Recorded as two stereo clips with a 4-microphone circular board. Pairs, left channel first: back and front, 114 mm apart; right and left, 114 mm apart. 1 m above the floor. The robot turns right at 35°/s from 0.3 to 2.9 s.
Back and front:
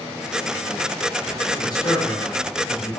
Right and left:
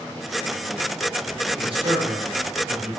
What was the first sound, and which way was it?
A man speaking, 120° left.